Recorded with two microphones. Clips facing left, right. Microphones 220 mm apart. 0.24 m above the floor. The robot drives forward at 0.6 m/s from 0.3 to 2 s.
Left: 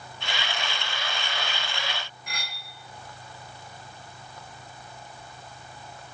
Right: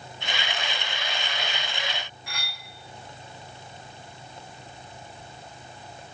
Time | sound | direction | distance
2.3 | cutlery clinking | 35° left (ahead or behind) | 1.7 m